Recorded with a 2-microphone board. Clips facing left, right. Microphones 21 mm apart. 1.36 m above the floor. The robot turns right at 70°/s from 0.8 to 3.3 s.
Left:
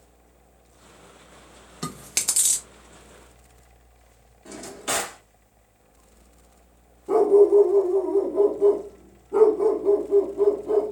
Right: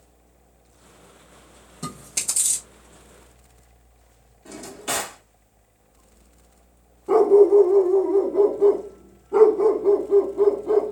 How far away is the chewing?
About 1.0 m.